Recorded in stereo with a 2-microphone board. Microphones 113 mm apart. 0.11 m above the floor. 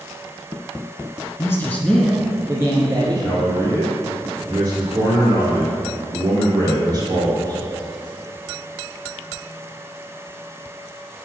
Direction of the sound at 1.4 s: 25° left (ahead or behind).